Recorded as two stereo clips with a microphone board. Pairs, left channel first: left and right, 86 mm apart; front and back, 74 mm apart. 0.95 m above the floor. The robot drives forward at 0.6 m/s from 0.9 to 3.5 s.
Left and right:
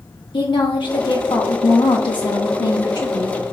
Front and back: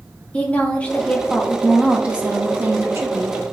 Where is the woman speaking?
70° left, 1.2 m; by 3.4 s 135° left, 1.6 m.